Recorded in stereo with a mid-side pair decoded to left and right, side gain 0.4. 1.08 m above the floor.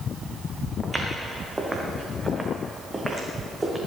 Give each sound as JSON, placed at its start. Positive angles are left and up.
{"t": 0.8, "sound": "footsteps", "azimuth_deg": -25, "distance_m": 4.0}